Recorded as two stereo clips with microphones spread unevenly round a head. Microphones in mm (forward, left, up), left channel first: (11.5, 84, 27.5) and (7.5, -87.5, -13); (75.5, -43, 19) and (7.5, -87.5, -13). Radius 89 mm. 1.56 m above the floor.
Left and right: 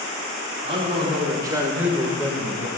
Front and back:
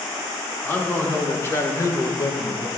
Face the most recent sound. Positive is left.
turn(degrees=45)